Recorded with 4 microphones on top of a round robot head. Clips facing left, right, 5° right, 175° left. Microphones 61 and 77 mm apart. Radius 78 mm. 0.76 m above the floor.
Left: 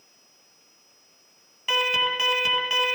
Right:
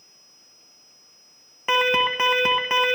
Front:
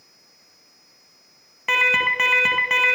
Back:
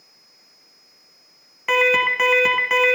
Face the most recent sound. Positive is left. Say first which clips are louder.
# right 4 dB, back 3 dB
turn(degrees=-95)